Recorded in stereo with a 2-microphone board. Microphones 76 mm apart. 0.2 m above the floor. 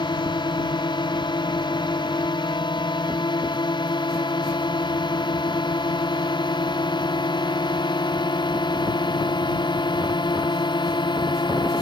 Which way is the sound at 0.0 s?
80° left.